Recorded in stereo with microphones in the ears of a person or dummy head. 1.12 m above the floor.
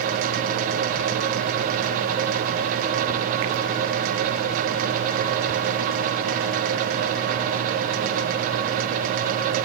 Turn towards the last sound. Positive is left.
No sound to turn to.